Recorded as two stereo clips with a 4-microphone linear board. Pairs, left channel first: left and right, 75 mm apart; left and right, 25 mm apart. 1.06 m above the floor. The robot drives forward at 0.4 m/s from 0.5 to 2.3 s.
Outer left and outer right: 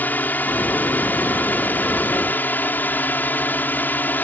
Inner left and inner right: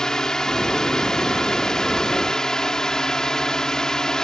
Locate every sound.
0.0 s a drone: 25° left (ahead or behind)